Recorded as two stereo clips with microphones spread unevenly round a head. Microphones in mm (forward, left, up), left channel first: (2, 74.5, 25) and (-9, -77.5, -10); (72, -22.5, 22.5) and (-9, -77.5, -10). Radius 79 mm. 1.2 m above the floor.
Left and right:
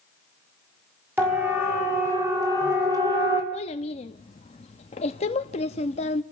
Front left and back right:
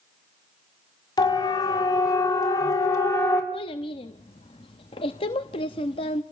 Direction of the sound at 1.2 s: 15° right.